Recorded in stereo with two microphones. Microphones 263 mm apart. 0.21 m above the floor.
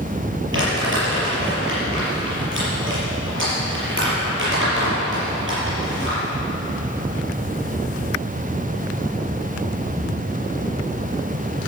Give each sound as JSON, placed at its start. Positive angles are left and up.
{"t": 0.5, "sound": "crumpling", "side_deg": -50, "distance_m": 5.5}